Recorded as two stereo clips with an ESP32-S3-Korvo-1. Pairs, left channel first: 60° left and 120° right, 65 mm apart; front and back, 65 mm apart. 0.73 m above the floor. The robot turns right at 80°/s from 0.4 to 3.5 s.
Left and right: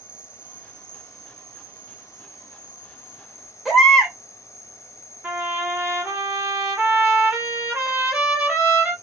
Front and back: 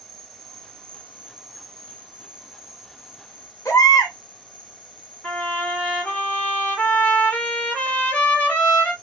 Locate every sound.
0.0 s an insect: 175° left, 0.7 m; by 9.0 s 60° left, 0.7 m
3.6 s a baby crying: 30° right, 1.4 m
5.2 s a trumpet: 55° right, 1.4 m